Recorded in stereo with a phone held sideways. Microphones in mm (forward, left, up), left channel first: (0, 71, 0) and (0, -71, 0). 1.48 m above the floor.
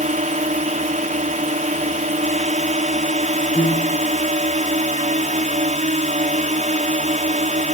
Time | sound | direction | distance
0.0 | a drone | 60° right (ahead or behind) | ?
3.5 | a piano | 65° left (ahead or behind) | ?